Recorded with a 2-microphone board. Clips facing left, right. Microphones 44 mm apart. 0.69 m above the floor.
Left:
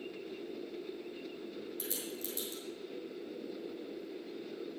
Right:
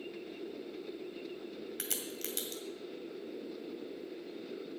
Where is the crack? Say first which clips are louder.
Even; 75° right (ahead or behind), 1.9 m.